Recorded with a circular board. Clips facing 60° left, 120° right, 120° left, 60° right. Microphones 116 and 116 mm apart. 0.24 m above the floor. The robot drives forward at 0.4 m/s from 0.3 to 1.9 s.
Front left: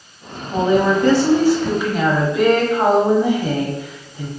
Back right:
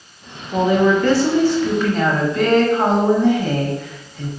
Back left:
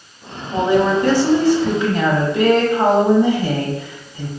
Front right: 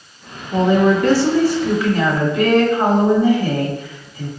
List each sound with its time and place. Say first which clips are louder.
0.5 s a woman speaking: back right 1 dB, front right 1 dB; 55° left, 1.2 m; by 4.3 s 125° left, 1.2 m